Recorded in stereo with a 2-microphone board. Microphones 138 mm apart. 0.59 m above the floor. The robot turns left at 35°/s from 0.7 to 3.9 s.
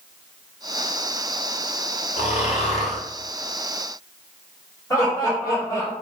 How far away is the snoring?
About 1.2 m.